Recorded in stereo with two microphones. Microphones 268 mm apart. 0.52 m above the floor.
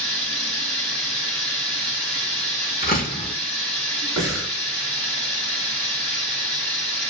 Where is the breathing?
65° right (ahead or behind), 1.4 m.